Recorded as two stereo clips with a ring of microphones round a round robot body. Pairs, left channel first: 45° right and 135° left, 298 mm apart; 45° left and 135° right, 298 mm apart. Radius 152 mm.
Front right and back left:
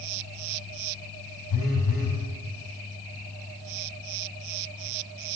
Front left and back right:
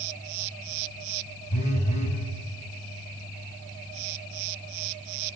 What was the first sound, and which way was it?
A phone buzzing, 20° right.